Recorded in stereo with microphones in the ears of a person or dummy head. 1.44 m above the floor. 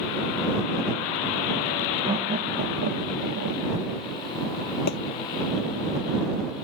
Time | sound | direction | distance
2.0 | laughter | 20° right (ahead or behind) | ?
4.9 | a thud | 60° left (ahead or behind) | ?